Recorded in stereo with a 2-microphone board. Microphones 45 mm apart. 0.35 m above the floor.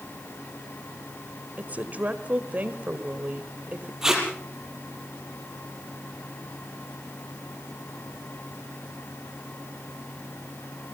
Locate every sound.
1.6 s a woman speaking: 35° right (ahead or behind), 1.7 m
4.0 s tape being pulled: 10° right (ahead or behind), 5.5 m